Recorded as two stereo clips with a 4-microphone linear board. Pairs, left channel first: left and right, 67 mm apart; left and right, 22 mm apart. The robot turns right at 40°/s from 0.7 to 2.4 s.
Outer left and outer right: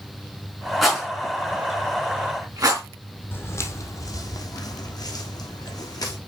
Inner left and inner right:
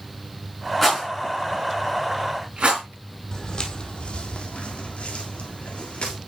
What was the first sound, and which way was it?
A rattle, centre (ahead or behind).